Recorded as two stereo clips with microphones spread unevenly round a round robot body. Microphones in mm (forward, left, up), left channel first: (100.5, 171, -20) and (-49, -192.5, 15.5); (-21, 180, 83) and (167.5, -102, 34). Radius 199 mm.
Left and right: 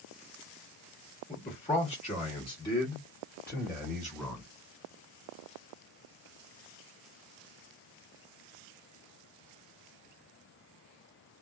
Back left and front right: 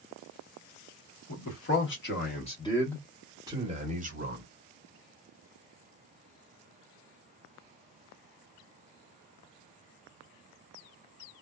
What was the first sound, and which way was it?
A man speaking, 120° left.